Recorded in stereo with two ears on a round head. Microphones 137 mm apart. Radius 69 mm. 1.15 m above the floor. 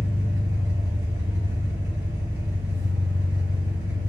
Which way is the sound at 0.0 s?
20° right (ahead or behind).